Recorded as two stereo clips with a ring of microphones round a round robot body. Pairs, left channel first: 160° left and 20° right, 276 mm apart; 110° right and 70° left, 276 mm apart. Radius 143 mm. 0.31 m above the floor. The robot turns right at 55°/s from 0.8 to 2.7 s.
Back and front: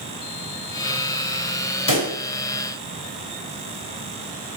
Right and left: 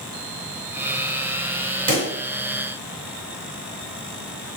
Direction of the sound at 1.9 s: 115° left.